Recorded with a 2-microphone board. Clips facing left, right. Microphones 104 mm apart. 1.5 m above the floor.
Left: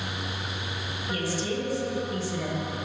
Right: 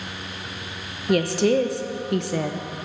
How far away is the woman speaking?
About 0.9 m.